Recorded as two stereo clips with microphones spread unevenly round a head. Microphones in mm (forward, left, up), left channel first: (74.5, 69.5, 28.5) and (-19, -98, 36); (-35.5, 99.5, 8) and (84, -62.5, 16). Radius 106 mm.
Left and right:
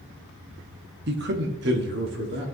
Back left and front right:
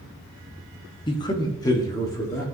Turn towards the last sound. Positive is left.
turn(degrees=-155)